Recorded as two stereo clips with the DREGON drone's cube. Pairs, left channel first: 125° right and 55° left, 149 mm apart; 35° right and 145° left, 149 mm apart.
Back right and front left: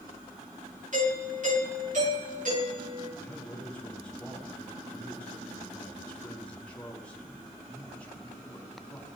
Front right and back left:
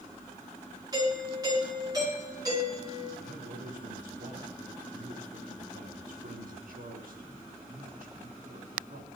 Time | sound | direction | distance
0.9 | a doorbell | 80° left | 9.5 m
3.2 | a man speaking | 155° left | 5 m